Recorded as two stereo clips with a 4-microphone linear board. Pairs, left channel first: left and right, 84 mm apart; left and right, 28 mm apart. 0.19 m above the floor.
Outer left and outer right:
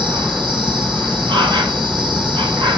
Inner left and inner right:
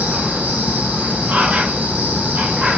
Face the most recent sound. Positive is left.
turn(degrees=-70)  # may be behind; listen again after turning